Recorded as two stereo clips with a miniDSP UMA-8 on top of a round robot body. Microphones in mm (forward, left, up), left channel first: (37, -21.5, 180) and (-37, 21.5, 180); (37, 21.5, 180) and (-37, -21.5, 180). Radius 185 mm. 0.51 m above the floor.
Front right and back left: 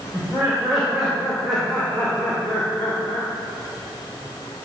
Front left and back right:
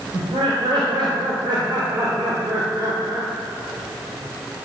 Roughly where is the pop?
I don't hear a pop.